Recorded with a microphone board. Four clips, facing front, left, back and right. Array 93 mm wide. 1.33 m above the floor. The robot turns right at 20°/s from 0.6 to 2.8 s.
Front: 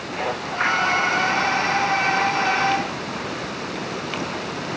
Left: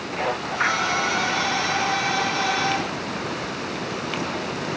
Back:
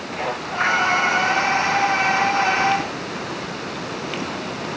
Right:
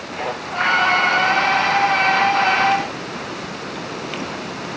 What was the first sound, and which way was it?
Only background noise.